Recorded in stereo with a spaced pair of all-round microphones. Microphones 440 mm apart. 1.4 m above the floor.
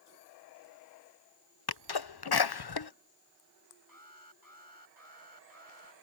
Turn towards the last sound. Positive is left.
turn(degrees=50)  # may be behind; listen again after turning